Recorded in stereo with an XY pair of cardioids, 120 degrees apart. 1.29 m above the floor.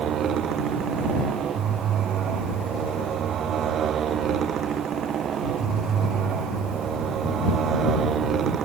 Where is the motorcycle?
55° right; by 8.7 s 45° right.